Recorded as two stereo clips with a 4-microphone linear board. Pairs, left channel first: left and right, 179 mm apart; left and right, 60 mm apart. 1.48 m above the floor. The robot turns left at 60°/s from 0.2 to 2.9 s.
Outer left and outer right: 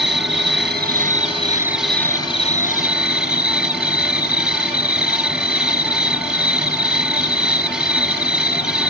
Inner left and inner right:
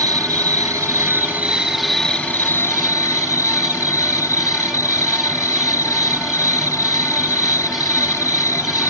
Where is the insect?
80° right; by 8.9 s 115° left.